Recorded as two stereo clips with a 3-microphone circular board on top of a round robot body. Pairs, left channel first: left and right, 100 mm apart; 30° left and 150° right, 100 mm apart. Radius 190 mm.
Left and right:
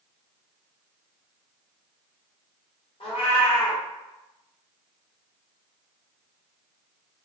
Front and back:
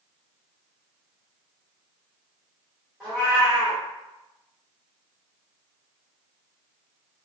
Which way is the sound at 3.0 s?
115° left.